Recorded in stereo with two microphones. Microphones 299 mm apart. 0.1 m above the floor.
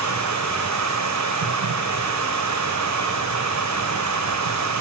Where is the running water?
65° right (ahead or behind), 1.6 m.